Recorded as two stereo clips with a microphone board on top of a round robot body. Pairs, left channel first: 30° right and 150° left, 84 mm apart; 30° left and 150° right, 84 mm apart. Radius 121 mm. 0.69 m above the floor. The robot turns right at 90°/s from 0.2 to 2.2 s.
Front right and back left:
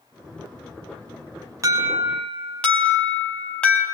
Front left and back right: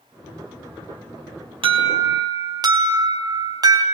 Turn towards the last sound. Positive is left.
turn(degrees=-105)